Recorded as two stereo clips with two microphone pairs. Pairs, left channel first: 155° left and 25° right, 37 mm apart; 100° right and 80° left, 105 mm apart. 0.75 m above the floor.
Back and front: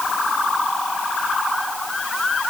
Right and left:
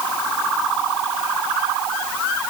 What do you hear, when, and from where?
Only background noise.